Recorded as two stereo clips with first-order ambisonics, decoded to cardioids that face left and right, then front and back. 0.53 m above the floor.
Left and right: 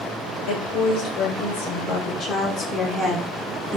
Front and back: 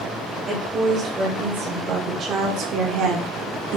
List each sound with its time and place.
0.5 s a woman speaking: 105° left, 1.7 m; by 3.8 s 165° right, 1.1 m